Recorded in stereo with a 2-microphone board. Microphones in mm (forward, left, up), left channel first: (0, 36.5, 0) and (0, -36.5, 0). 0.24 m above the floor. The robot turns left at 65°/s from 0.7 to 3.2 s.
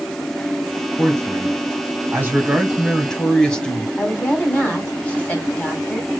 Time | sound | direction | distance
1.0 | a man speaking | 50° right | 1.4 m
4.0 | a woman speaking | 20° left (ahead or behind) | 1.5 m